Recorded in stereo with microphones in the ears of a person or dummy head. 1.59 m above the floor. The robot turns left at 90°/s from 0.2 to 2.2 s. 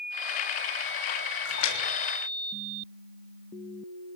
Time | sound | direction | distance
1.4 | a splash | 80° left | 6.5 m